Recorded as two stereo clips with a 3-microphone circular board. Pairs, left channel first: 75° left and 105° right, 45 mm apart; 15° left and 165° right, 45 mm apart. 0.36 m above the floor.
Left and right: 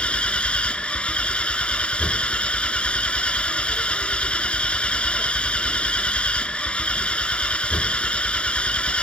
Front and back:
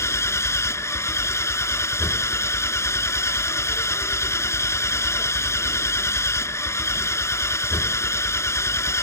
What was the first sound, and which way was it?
An engine running, 10° left.